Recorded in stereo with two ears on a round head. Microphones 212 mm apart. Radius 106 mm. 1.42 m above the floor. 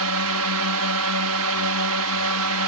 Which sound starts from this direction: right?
A drone, at 0.0 s.